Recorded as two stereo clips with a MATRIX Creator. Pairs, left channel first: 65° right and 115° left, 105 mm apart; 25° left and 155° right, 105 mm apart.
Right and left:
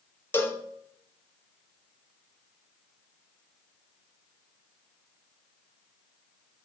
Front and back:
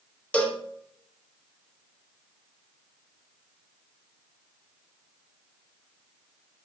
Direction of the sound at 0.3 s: 40° right.